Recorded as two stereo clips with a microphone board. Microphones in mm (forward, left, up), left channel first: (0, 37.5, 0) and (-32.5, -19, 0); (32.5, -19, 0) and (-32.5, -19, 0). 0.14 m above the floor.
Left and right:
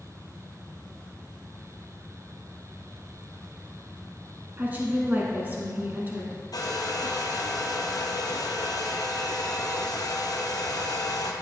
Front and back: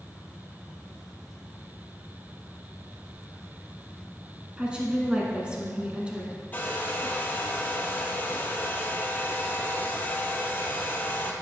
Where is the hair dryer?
60° left, 1.2 m.